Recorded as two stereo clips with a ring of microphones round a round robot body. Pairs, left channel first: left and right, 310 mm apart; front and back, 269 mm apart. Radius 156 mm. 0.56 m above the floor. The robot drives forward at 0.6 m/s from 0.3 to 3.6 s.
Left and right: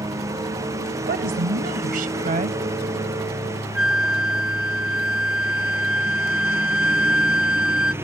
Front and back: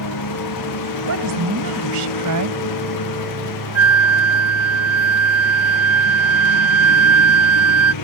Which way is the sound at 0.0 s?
10° right.